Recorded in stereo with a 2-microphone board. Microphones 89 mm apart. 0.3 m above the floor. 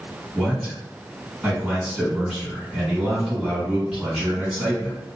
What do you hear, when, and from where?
0.3 s a man speaking: 10° right (ahead or behind), 2.0 m